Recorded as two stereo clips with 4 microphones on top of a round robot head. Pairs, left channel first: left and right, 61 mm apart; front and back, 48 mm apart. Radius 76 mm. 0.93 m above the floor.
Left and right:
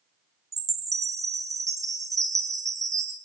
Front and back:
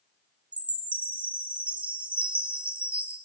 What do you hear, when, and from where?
0.5 s a chime: 115° right, 3.5 m